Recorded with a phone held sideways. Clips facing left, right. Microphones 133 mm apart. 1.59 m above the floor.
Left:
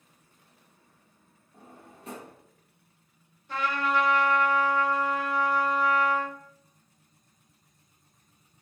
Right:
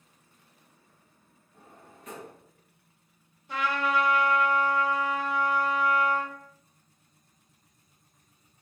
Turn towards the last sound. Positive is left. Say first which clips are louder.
# even
turn(degrees=-15)  # may be behind; listen again after turning